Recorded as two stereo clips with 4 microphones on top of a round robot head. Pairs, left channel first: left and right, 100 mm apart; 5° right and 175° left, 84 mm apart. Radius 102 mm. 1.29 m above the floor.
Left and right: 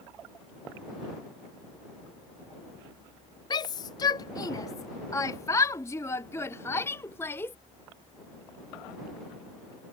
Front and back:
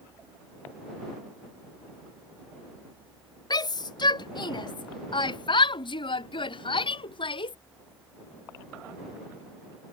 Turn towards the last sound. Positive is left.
turn(degrees=15)